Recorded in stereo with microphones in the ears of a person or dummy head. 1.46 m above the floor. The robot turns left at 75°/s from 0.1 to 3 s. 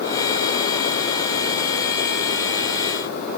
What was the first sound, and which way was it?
Only background noise.